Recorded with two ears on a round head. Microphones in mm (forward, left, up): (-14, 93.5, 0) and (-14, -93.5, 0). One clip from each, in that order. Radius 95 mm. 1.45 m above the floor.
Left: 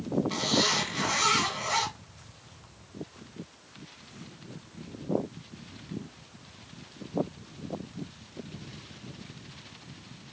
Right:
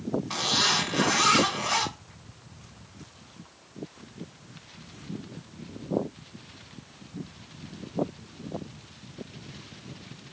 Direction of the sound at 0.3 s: 50° right (ahead or behind).